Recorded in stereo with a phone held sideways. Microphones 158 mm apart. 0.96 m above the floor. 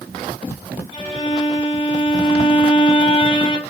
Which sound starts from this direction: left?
A violin, at 0.9 s.